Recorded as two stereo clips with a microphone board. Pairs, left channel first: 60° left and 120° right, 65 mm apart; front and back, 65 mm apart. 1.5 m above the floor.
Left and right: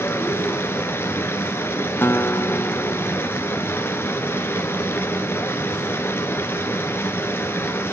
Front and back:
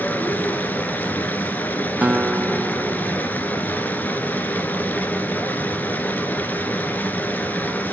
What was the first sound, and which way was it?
Running water, 40° left.